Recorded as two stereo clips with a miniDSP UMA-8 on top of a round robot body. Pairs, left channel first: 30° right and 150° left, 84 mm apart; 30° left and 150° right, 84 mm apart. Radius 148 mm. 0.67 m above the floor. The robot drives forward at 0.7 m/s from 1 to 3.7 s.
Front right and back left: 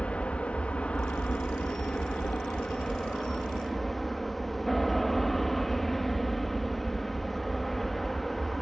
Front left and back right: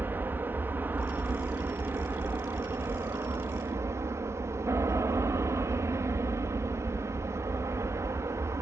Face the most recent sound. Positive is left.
turn(degrees=-115)